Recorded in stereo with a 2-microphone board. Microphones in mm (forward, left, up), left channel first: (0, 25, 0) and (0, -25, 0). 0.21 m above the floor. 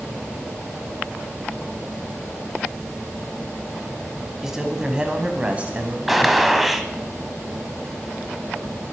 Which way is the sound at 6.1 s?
5° right (ahead or behind).